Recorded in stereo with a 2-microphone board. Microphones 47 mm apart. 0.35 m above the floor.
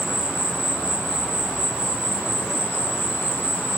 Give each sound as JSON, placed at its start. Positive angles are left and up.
{"t": 0.0, "sound": "an insect", "side_deg": 55, "distance_m": 1.2}